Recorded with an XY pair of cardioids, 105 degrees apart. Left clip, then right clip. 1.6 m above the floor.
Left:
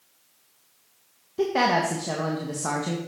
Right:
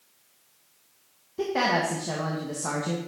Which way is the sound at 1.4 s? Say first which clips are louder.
Left 3 dB; 20° left.